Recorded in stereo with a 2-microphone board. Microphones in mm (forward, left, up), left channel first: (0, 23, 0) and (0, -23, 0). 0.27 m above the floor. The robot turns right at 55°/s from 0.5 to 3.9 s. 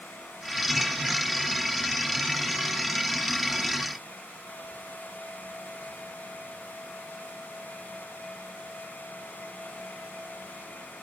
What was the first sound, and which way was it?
Only background noise.